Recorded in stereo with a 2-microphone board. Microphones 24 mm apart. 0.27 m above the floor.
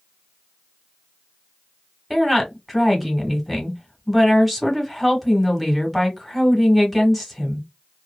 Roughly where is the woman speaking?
Centre.